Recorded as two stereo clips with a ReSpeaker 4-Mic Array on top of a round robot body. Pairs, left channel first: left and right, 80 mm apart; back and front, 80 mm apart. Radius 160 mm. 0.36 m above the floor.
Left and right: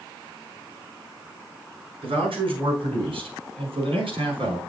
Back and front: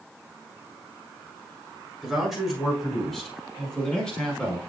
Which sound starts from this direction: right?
A man speaking, at 2.0 s.